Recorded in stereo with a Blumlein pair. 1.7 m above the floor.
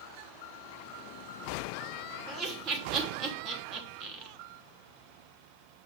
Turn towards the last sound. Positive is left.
turn(degrees=-35)